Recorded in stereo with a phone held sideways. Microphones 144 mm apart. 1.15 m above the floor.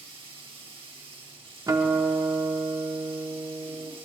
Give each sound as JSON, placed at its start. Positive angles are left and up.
{"t": 0.0, "sound": "running water", "side_deg": -40, "distance_m": 1.5}
{"t": 1.7, "sound": "a guitar", "side_deg": -25, "distance_m": 1.0}